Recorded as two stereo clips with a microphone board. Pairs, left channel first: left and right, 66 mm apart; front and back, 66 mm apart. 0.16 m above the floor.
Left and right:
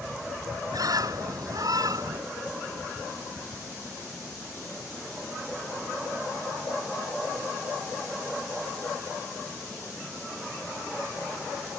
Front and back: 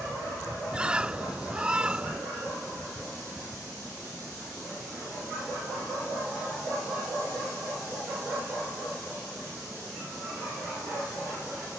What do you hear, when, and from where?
0.7 s a bird: 105° right